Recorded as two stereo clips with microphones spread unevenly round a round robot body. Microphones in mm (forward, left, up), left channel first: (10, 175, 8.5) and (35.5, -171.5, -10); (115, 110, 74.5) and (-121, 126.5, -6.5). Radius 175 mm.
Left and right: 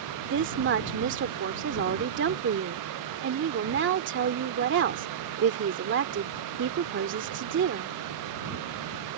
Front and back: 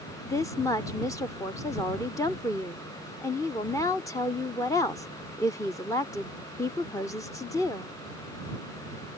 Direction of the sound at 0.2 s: 100° right.